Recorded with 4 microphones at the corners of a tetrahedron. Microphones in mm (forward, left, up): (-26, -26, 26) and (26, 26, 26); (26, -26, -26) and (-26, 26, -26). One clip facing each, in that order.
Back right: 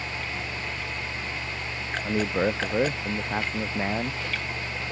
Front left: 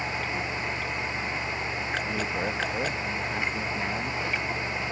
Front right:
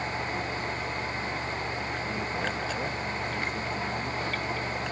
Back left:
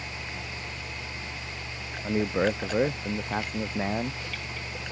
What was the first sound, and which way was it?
A man speaking, 165° left.